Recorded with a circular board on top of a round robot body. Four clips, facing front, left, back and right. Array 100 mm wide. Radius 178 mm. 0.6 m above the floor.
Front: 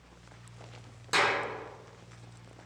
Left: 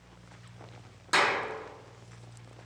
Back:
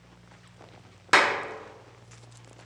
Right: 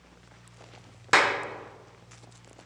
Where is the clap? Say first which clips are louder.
Right 4 dB, back 6 dB; 140° right, 0.7 m.